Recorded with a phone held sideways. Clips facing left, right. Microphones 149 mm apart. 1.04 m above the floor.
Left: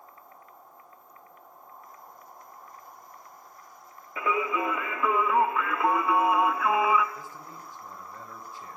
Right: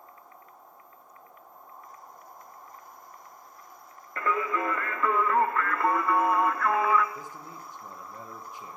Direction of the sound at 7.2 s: 20° right (ahead or behind).